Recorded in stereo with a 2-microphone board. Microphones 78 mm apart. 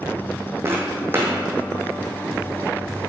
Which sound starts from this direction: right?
Footsteps, at 0.7 s.